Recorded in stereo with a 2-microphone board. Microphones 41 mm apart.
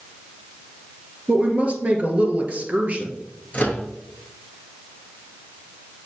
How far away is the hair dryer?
No hair dryer in this recording.